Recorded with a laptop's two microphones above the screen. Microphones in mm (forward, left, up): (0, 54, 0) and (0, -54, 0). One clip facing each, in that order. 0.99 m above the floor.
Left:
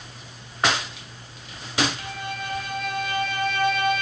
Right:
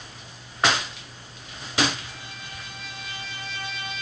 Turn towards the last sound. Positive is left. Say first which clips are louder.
# left 9 dB
turn(degrees=60)  # may be behind; listen again after turning